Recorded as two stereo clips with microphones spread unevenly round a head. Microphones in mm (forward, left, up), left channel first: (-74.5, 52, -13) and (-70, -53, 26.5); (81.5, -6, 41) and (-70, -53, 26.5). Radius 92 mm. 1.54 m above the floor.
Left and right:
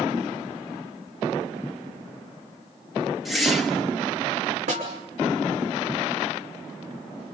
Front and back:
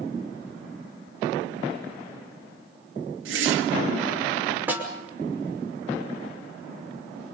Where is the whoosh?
175° right, 1.9 m.